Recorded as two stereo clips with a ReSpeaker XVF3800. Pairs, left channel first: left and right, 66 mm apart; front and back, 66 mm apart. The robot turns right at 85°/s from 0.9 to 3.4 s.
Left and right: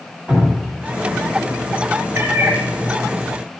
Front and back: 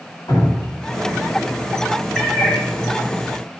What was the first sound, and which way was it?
Dripping, 10° right.